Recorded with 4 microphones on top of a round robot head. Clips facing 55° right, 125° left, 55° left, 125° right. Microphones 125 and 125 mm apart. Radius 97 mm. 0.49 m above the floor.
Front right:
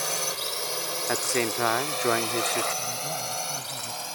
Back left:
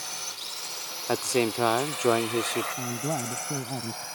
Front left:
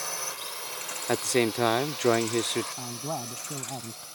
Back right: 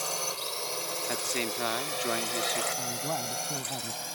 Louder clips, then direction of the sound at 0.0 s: Front right 10 dB, back right 3 dB; 60° right.